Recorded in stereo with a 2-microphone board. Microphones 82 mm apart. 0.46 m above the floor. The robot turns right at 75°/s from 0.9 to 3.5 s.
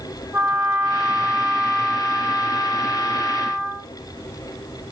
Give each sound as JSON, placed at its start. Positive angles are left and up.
{"t": 0.3, "sound": "a trumpet", "azimuth_deg": -50, "distance_m": 2.5}